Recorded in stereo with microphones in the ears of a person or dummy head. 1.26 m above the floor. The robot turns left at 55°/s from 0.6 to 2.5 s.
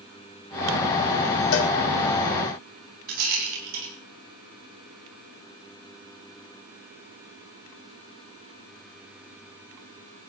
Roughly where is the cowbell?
Left.